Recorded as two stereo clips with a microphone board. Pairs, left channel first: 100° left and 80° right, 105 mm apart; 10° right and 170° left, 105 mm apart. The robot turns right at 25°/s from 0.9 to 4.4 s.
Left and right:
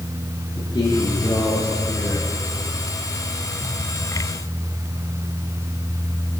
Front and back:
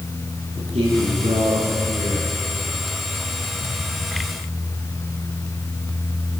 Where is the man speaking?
155° left, 7 m; by 2.3 s 170° right, 7 m.